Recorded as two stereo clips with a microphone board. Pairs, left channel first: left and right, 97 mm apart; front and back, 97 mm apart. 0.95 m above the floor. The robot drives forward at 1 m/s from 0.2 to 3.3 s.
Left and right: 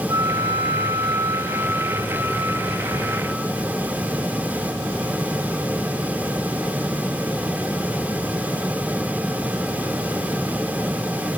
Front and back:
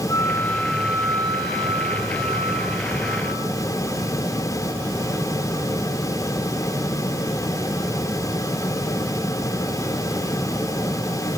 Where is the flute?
45° right, 0.8 m; by 3.6 s 170° right, 2.5 m.